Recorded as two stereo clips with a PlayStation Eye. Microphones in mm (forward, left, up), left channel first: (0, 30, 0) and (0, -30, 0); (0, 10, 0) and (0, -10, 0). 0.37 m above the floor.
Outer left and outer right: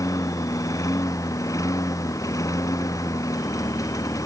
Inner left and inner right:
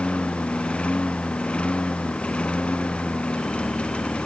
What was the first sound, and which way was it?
A lawn mower, 65° left (ahead or behind).